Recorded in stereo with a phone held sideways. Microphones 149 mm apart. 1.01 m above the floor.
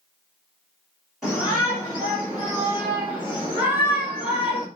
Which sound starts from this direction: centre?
A shout, at 1.2 s.